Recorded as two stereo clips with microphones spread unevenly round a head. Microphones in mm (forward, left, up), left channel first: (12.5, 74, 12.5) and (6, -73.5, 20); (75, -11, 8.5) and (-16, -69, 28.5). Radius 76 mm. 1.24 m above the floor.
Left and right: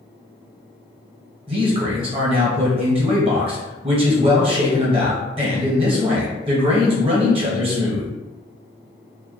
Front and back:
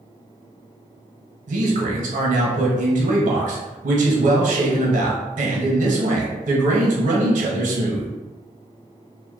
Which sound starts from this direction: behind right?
A man speaking, at 1.5 s.